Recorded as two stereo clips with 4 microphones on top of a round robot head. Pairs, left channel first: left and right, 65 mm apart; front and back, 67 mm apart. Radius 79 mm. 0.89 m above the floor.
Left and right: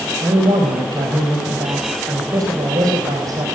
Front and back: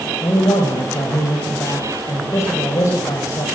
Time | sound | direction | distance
0.2 | a man speaking | 50° right | 4.5 m